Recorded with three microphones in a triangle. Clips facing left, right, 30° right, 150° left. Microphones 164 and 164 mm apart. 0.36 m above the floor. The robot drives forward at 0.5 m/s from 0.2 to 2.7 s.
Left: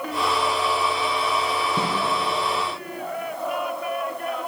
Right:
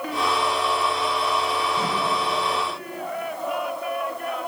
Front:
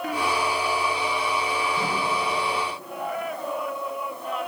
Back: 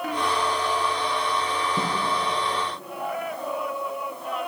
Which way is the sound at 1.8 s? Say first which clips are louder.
Left 1 dB, back 1 dB; 115° left.